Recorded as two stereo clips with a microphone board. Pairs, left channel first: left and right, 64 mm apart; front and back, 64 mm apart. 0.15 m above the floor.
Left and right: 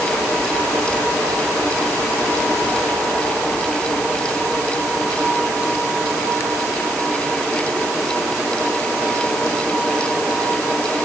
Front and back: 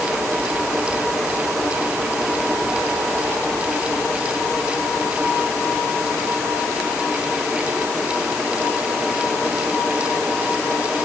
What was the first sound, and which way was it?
Only background noise.